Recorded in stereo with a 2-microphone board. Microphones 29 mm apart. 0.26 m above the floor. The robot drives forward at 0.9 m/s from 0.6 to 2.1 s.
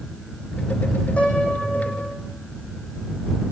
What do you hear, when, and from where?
1.2 s a piano: 50° left (ahead or behind), 7.5 m; by 2.1 s 45° left (ahead or behind), 8 m